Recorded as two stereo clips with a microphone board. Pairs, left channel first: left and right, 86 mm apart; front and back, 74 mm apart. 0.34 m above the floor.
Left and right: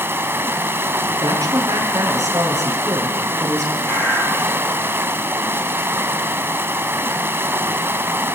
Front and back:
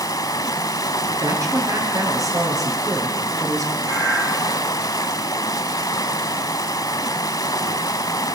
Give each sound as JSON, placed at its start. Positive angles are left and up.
{"t": 0.0, "sound": "running water", "azimuth_deg": -30, "distance_m": 1.1}
{"t": 1.2, "sound": "a woman speaking", "azimuth_deg": -140, "distance_m": 5.5}
{"t": 3.8, "sound": "a bird", "azimuth_deg": 150, "distance_m": 8.0}